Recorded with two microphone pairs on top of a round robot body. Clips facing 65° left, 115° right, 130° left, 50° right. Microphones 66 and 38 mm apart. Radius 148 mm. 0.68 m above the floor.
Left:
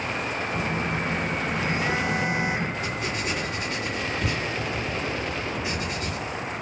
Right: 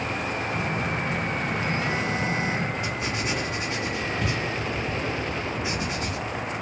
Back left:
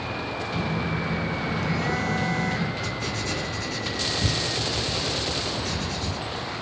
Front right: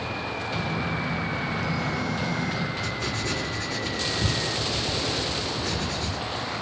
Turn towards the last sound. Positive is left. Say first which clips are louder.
# even, even
turn(degrees=-50)